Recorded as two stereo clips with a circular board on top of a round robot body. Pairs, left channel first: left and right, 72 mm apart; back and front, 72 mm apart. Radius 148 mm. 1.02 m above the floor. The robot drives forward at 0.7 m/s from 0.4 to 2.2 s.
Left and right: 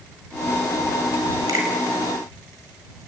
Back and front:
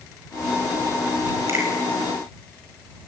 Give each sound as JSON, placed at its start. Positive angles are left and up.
{"t": 1.5, "sound": "a finger snap", "azimuth_deg": -50, "distance_m": 6.0}